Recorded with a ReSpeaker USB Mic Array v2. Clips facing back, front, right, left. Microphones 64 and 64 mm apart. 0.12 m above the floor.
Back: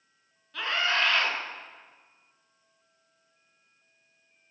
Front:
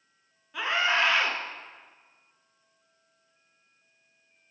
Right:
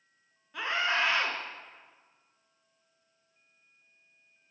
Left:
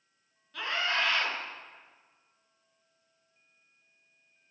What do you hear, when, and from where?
0.5 s a scream: 55° right, 1.1 m